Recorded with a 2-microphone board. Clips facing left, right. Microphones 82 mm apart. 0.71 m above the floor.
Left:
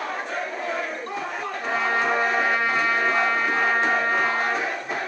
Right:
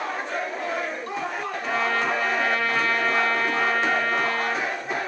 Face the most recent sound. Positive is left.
turn(degrees=20)  # may be behind; listen again after turning